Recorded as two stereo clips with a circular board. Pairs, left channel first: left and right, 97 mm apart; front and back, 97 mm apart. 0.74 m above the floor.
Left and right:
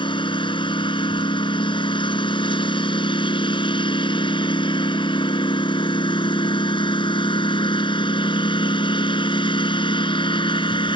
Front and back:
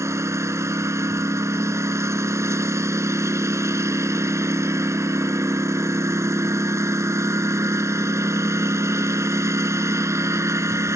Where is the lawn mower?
120° left.